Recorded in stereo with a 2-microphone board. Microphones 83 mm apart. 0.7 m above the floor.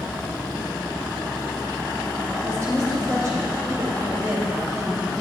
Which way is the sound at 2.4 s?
35° right (ahead or behind).